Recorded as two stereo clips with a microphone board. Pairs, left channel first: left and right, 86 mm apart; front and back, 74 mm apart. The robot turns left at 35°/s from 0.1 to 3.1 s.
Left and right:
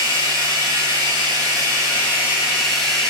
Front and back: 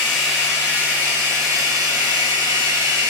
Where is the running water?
85° right, 7 m; by 3.1 s 170° left, 7 m.